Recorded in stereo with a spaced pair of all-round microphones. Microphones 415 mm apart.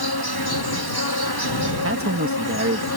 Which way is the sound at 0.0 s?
60° left (ahead or behind).